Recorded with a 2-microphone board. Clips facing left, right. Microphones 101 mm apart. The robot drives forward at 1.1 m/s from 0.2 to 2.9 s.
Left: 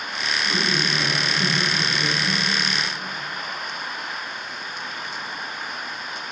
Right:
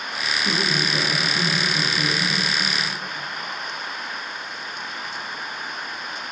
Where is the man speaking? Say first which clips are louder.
Right 1 dB; 65° right (ahead or behind), 5.5 m; by 2.4 s 50° right (ahead or behind), 7 m.